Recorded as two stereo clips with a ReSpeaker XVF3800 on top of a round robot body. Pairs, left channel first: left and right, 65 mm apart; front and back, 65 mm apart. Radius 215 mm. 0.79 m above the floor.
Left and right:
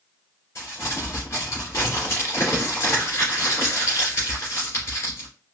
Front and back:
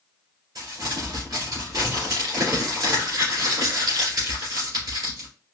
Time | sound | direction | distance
0.6 | crumpling | 145° left | 2 m